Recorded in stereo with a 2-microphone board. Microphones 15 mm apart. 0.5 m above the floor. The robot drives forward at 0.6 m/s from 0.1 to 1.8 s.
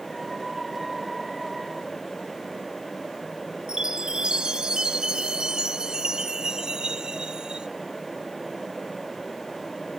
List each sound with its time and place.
3.7 s a chime: 65° right (ahead or behind)